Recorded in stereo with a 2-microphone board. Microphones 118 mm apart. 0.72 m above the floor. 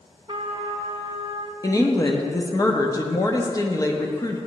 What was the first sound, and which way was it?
A trumpet, 40° right (ahead or behind).